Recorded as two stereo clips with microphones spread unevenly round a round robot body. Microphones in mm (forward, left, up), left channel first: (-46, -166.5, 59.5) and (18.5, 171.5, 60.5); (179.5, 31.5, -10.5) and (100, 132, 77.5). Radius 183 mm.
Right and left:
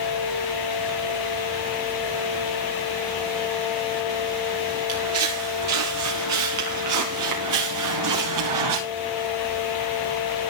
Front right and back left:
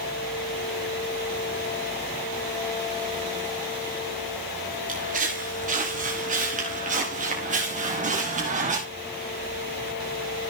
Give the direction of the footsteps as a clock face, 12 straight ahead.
8 o'clock.